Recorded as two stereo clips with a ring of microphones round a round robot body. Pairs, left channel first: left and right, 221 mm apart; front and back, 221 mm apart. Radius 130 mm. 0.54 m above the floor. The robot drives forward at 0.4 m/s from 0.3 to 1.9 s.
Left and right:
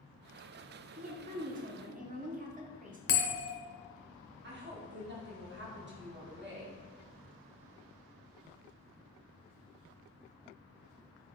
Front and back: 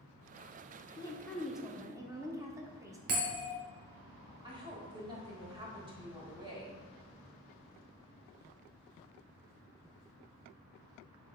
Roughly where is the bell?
Behind left.